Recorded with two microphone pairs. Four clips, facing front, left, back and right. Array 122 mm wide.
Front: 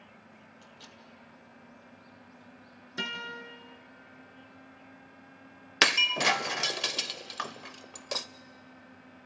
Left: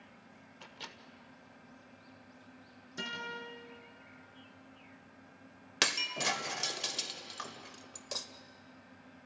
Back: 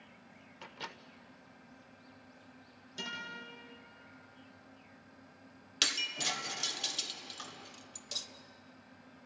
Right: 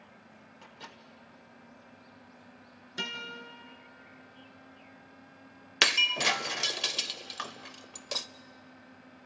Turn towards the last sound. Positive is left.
turn(degrees=-20)